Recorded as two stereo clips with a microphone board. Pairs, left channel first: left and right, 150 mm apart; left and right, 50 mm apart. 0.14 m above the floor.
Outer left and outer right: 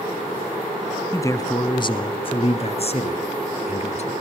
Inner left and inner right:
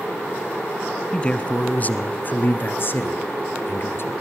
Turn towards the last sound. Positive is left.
turn(degrees=50)  # may be behind; listen again after turning